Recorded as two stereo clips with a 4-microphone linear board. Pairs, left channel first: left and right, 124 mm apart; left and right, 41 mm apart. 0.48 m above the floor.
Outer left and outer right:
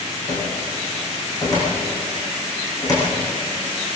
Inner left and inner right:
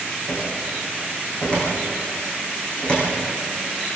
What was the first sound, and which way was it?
A cupboard door, 30° left (ahead or behind).